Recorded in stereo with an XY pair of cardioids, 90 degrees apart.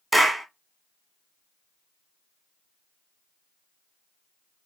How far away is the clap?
About 1.2 m.